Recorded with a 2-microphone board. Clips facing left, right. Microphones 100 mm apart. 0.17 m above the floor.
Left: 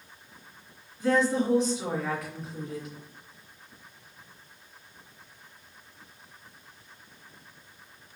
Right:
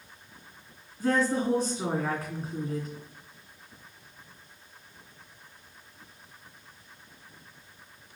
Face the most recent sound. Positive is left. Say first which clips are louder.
# left 1 dB
turn(degrees=-40)  # may be behind; listen again after turning